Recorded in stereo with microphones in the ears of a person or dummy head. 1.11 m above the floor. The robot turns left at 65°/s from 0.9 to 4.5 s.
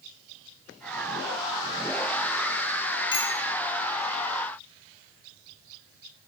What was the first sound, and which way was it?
A bicycle bell, 25° left (ahead or behind).